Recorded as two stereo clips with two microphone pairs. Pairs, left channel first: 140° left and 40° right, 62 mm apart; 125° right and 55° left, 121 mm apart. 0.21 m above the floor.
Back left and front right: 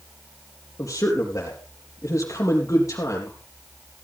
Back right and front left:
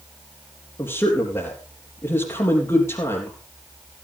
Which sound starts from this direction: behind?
A man speaking, at 0.8 s.